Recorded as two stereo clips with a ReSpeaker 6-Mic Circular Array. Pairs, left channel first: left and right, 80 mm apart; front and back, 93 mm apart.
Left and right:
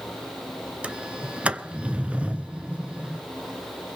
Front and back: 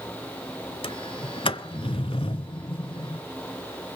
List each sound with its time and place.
0.8 s a sliding door: 15° right, 0.6 m